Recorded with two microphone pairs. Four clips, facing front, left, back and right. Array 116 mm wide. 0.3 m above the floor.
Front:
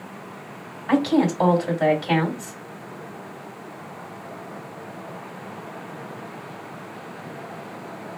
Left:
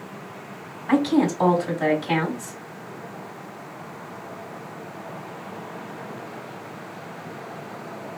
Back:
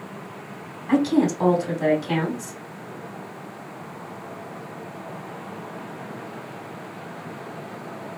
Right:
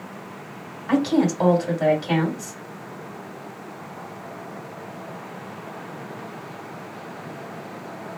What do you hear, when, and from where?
0.9 s a woman speaking: straight ahead, 2.0 m